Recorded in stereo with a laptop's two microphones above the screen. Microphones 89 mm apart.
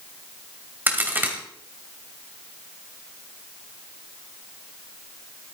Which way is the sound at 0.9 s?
25° right (ahead or behind).